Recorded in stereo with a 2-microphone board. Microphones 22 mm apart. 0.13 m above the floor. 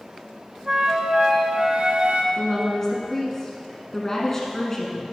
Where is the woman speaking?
20° left (ahead or behind), 1.3 m.